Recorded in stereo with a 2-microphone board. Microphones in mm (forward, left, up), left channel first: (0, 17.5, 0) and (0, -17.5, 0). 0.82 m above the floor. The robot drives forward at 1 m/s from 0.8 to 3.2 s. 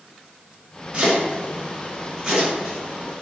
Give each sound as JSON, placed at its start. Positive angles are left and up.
{"t": 0.9, "sound": "chopping", "side_deg": -35, "distance_m": 1.0}